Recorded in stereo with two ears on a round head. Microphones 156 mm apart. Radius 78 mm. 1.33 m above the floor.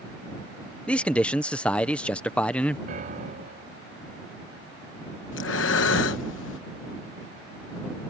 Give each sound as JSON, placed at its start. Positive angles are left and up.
{"t": 0.9, "sound": "a man speaking", "side_deg": 5}
{"t": 2.9, "sound": "a piano", "side_deg": -50}
{"t": 5.3, "sound": "breathing", "side_deg": 85}